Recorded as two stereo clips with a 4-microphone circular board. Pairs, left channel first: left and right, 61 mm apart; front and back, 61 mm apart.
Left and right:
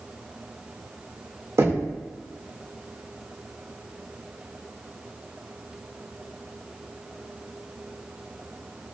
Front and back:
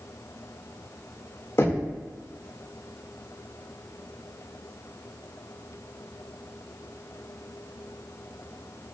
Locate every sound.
1.6 s knocking: 45° right, 1.9 m